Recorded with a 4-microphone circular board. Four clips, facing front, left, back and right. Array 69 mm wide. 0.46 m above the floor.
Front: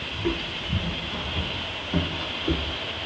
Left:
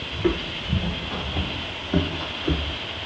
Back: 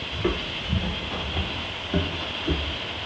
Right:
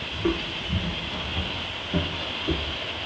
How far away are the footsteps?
About 0.8 m.